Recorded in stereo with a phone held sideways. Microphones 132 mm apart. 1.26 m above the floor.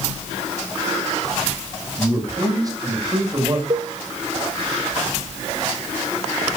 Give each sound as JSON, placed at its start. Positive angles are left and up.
{"t": 2.0, "sound": "a man speaking", "side_deg": -25, "distance_m": 7.5}
{"t": 3.7, "sound": "a cowbell", "side_deg": -55, "distance_m": 1.5}